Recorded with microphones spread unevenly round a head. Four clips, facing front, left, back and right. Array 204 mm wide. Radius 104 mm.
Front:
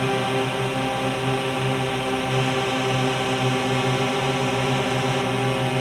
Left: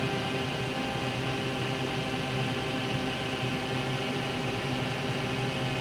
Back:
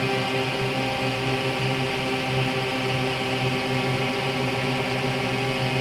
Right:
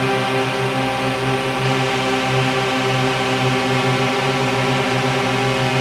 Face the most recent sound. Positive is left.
turn(degrees=-85)